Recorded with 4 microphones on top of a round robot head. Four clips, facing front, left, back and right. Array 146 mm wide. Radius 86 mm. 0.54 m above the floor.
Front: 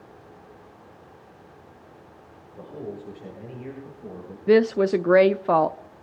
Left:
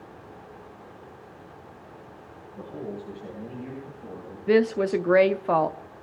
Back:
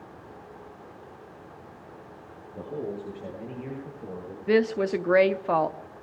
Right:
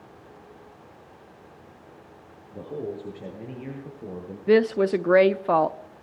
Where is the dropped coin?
I don't hear a dropped coin.